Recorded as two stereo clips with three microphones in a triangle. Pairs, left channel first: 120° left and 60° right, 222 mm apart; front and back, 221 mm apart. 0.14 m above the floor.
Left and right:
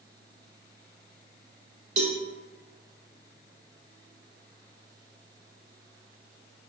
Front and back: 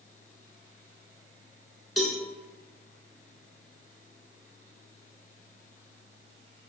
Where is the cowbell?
90° right, 0.6 m.